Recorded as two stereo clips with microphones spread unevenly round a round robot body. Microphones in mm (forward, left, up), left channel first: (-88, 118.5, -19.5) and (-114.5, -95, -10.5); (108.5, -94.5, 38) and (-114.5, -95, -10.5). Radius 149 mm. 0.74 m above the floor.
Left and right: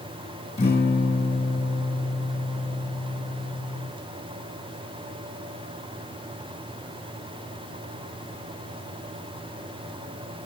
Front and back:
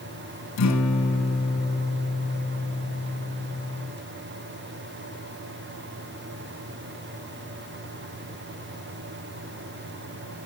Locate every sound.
0.6 s a guitar: 10° left, 7 m